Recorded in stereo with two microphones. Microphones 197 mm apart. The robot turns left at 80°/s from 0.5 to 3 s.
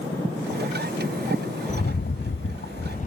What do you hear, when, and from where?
1.7 s a rattle: 145° left, 0.7 m; by 3.1 s 45° left, 0.7 m